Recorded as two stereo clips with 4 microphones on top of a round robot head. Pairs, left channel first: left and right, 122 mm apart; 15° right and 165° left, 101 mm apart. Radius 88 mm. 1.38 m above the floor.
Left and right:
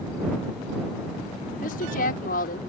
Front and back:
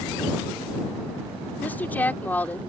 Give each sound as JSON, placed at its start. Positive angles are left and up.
{"t": 1.6, "sound": "a woman speaking", "azimuth_deg": 60}